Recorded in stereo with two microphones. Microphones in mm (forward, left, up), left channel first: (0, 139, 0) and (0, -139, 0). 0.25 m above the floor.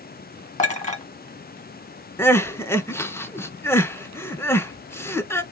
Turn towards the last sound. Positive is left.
turn(degrees=10)  # may be behind; listen again after turning